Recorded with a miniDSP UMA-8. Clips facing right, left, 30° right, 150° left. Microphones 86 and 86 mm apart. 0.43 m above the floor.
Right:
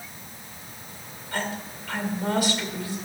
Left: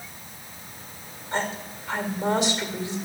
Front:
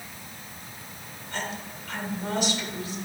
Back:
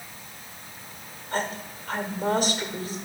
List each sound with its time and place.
1.3 s a woman speaking: 145° left, 1.6 m